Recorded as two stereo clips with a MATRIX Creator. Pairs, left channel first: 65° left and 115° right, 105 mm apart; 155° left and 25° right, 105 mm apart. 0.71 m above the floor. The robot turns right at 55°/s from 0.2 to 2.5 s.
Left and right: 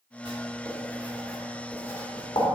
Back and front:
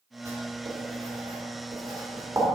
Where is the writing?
80° right, 2.5 m; by 2.5 s 40° left, 2.5 m.